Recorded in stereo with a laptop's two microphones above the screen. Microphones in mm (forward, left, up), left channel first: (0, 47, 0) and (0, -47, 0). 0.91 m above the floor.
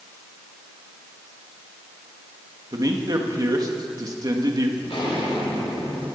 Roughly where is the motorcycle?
I don't hear a motorcycle.